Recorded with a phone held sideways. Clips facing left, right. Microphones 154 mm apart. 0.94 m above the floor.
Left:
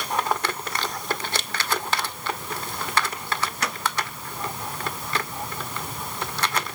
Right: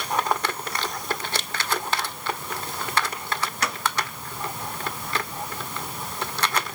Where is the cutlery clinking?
I don't hear cutlery clinking.